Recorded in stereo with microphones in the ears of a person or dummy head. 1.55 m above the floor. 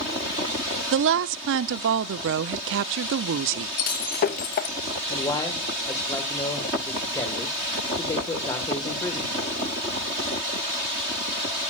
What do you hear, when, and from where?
0.9 s a woman speaking: 65° right (ahead or behind), 0.5 m
3.8 s breaking glass: 45° left (ahead or behind), 0.9 m
5.1 s a man speaking: 20° left (ahead or behind), 1.6 m